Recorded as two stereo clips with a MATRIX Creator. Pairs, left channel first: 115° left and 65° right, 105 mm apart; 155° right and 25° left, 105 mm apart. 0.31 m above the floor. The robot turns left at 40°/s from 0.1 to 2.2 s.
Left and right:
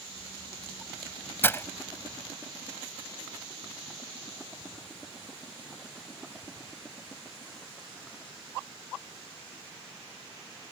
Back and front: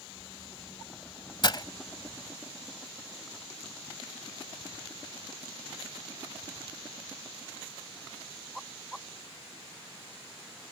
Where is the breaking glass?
175° left; by 1.6 s 170° left.